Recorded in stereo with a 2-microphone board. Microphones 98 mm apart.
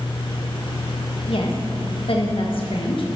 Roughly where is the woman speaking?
Left.